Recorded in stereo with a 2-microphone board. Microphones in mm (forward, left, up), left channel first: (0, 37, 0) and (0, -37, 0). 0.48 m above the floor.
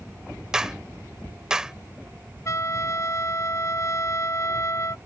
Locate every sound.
0.5 s a clap: 10° right (ahead or behind)
2.5 s a trumpet: 40° left (ahead or behind)